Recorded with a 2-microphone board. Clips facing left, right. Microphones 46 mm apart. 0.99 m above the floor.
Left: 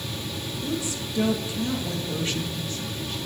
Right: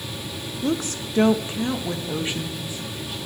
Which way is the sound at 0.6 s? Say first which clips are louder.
Right 6 dB; 60° right (ahead or behind).